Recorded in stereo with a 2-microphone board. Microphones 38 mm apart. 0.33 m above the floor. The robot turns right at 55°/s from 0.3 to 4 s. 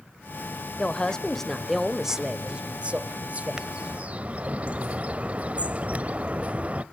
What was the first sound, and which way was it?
A woman speaking, 125° left.